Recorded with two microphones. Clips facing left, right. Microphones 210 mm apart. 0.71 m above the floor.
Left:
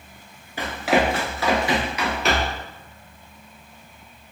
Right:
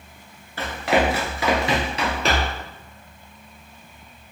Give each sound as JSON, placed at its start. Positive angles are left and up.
{"t": 0.6, "sound": "running footsteps", "side_deg": 15, "distance_m": 0.7}